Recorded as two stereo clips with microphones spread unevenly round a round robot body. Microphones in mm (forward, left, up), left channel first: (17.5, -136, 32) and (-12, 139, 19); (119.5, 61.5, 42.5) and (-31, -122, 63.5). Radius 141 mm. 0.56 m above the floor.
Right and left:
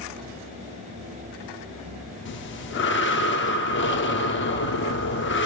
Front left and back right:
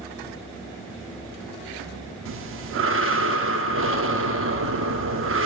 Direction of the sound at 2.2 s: 125° right.